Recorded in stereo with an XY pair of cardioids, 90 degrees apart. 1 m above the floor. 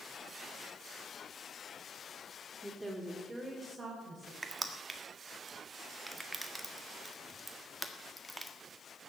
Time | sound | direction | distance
2.6 | a woman speaking | 5° right | 2 m
4.4 | crushing | 15° right | 1.7 m